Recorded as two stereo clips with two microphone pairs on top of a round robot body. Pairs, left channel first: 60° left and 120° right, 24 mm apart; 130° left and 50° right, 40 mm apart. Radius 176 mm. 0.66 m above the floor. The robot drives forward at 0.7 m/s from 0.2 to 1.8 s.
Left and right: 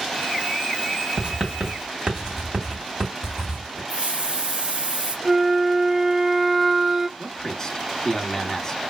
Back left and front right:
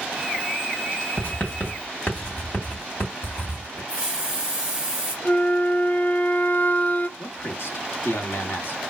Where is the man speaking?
125° left, 1.3 m.